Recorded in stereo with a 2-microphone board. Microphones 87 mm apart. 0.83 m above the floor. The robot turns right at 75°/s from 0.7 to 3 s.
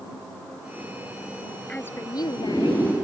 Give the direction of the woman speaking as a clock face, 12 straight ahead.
12 o'clock.